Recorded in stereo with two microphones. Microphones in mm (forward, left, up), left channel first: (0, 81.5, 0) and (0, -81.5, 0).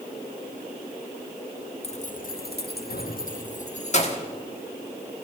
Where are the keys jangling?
40° left (ahead or behind), 0.7 m.